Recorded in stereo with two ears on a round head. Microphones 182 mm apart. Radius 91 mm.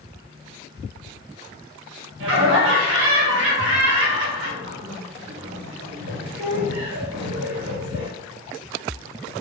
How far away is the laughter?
About 2 m.